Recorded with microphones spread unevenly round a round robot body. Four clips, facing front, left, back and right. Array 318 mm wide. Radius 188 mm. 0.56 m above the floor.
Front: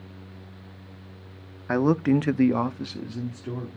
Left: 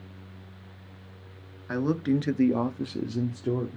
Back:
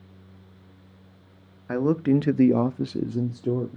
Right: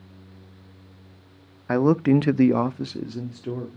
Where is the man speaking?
45° right, 1.0 m; by 3.8 s 160° left, 1.4 m.